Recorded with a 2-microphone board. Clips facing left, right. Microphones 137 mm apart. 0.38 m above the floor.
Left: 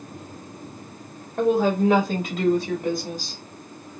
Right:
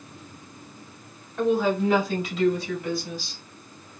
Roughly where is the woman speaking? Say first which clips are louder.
Left 3 dB; left.